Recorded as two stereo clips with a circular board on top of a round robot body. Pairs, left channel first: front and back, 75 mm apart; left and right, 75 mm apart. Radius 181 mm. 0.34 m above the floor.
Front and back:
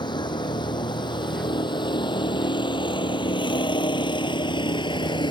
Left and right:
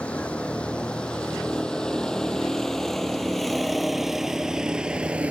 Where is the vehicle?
15° left; by 5.3 s 15° right.